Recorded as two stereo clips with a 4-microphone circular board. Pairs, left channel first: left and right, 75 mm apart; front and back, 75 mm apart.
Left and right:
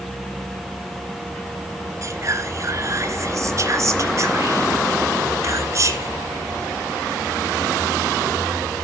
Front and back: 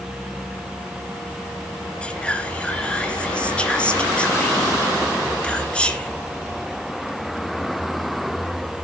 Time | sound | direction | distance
2.0 | whispering | 70° right | 2 m